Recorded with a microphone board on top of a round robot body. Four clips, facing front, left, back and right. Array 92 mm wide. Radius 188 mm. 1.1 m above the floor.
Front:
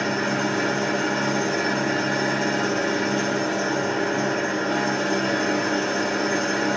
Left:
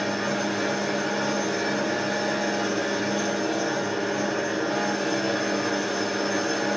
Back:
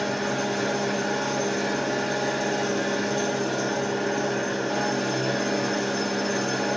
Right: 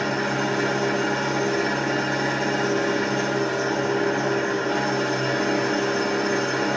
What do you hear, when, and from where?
0.0 s an engine running: 35° right, 1.6 m